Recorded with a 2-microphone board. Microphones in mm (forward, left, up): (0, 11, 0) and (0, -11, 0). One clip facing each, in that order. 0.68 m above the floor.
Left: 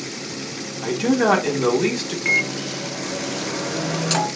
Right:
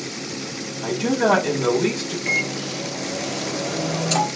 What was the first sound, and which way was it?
A man speaking, 35° left (ahead or behind).